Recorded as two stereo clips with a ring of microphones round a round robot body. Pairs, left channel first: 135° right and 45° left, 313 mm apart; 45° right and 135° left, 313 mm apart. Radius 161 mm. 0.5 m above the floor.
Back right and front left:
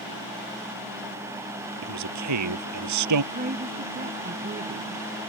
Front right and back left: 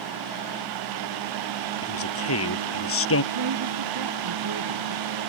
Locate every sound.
1.8 s a man speaking: 5° left
3.3 s a woman speaking: 110° left